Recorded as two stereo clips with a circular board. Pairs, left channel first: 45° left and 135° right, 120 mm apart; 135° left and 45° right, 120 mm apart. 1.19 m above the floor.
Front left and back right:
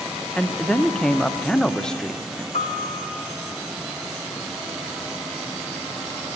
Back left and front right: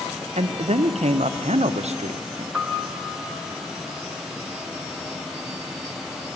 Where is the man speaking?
40° right, 0.6 m.